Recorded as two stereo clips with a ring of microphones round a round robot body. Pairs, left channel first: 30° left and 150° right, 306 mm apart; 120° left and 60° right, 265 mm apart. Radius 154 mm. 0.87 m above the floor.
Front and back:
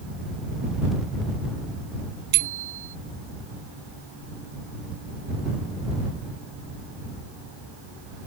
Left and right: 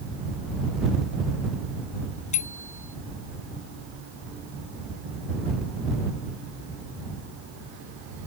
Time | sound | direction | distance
2.3 | a bicycle bell | 170° right | ?